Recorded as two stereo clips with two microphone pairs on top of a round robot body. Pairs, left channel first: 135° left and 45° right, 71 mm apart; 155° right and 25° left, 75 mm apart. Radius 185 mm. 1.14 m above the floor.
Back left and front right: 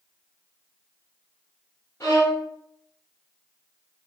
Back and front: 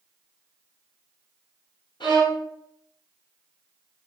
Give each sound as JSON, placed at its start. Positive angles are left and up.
{"t": 2.0, "sound": "a violin", "azimuth_deg": -170, "distance_m": 2.0}